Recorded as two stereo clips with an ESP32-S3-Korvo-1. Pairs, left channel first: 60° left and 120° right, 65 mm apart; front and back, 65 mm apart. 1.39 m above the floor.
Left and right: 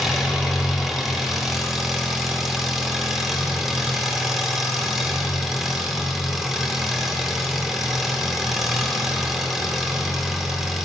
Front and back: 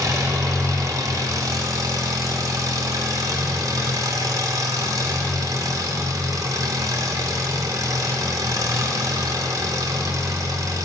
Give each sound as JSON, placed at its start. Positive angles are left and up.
{"t": 0.0, "sound": "an engine running", "azimuth_deg": 155, "distance_m": 0.9}